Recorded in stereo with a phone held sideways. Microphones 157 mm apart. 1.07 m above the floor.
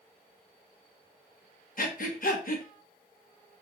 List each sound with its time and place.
1.8 s breathing: 60° left (ahead or behind), 0.6 m